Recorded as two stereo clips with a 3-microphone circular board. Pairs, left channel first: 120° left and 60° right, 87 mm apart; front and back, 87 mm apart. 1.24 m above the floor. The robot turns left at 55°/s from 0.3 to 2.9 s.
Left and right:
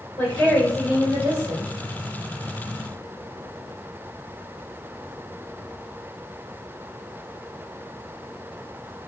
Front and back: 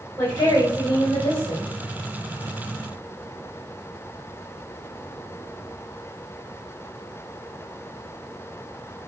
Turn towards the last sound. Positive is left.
turn(degrees=-90)